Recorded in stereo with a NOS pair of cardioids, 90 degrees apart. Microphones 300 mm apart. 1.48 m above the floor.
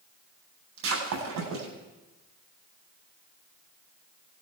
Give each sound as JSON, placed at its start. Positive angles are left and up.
{"t": 0.8, "sound": "breaking glass", "azimuth_deg": -70, "distance_m": 9.5}